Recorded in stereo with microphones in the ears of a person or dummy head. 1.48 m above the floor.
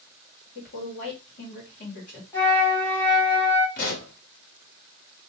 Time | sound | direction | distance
0.6 | a woman speaking | 50° left (ahead or behind) | 1.4 m
2.3 | a flute | 20° left (ahead or behind) | 1.1 m
3.8 | a pop | 50° left (ahead or behind) | 0.9 m